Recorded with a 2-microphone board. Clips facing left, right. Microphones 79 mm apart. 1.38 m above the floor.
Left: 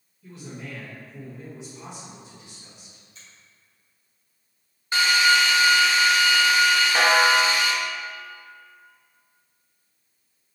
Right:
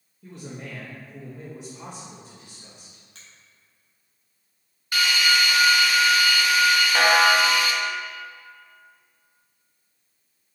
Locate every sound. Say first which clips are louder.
0.2 s a man speaking: right 1 dB; 50° right (ahead or behind), 1.7 m
3.1 s a finger snap: even; 70° right (ahead or behind), 1.9 m
4.9 s a drill: left 3 dB; 25° left (ahead or behind), 0.7 m
7.0 s a snare drum: right 1 dB; centre (ahead or behind), 1.0 m